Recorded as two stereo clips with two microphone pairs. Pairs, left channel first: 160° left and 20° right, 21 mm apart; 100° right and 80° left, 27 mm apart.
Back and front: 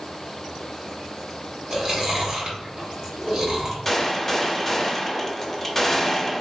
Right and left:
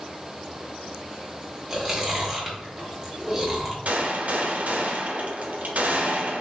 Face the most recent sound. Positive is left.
turn(degrees=90)